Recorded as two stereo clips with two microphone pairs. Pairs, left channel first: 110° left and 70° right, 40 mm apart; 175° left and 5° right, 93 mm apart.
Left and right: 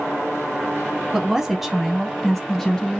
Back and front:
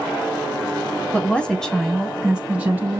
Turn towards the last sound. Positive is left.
turn(degrees=40)